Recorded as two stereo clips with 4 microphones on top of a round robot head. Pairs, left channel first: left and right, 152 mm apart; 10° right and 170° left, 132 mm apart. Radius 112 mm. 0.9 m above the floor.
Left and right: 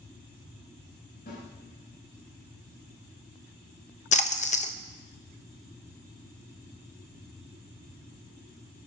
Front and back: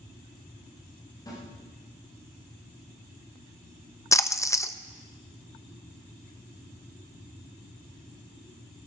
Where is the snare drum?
50° left, 7 m.